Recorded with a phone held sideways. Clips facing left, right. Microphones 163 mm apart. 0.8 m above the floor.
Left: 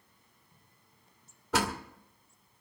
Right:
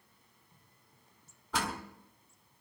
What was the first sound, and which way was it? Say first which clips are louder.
A door slam: left 5 dB; 85° left.